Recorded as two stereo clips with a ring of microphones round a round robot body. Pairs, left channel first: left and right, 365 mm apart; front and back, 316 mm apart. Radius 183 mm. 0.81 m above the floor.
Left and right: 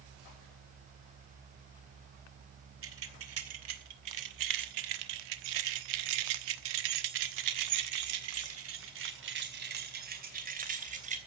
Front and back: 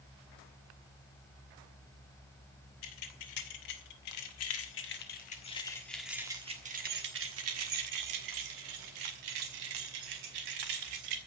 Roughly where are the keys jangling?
Ahead right.